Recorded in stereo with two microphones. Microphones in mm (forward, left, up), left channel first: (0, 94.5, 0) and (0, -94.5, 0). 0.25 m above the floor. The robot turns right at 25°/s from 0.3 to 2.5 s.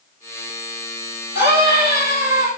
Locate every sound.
1.4 s a scream: 75° left (ahead or behind), 8 m; by 2.5 s 50° left (ahead or behind), 8 m